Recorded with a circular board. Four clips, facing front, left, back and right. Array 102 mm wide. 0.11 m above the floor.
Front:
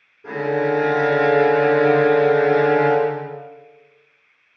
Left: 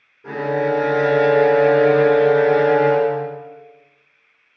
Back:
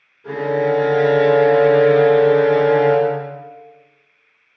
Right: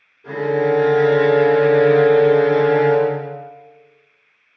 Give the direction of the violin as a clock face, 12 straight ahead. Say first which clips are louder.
Right 2 dB, back 2 dB; 10 o'clock.